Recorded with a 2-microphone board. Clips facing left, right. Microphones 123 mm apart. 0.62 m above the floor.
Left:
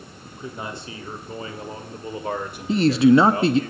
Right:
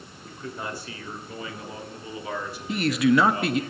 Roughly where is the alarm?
I don't hear an alarm.